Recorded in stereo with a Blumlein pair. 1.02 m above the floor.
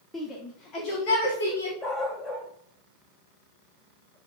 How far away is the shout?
About 2 m.